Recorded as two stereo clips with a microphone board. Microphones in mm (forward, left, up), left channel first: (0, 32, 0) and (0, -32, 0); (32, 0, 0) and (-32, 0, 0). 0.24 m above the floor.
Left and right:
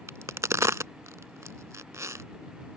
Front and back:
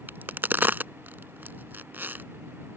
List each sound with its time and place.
0.1 s a crack: 125° right